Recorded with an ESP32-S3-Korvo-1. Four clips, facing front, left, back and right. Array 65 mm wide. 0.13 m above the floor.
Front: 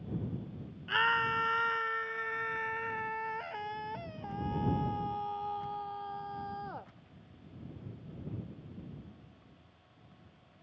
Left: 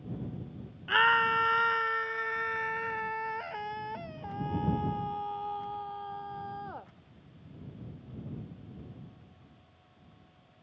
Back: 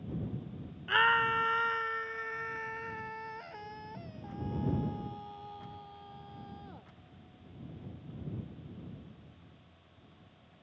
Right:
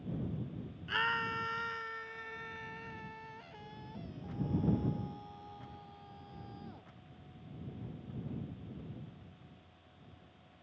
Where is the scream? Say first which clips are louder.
Left 10 dB, back 3 dB; 115° left; by 6.9 s 50° left.